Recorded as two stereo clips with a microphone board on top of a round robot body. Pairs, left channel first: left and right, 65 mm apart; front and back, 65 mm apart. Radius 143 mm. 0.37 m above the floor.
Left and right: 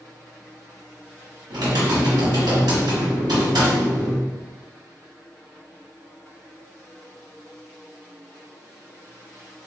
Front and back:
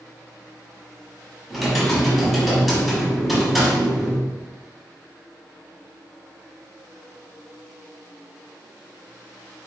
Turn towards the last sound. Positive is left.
turn(degrees=-90)